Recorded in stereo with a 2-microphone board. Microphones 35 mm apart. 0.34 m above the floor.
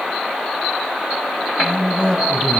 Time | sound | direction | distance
1.6 | a man speaking | 30° left (ahead or behind) | 2.5 m